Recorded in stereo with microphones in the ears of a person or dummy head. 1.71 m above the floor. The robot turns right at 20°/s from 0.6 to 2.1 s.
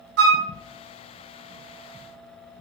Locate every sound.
0.2 s a flute: 70° right (ahead or behind), 0.6 m